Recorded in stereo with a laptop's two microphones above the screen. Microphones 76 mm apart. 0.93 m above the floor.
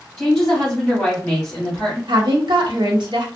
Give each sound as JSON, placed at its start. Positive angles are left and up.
{"t": 0.2, "sound": "a woman speaking", "side_deg": 10, "distance_m": 1.7}
{"t": 2.1, "sound": "a woman speaking", "side_deg": -75, "distance_m": 0.9}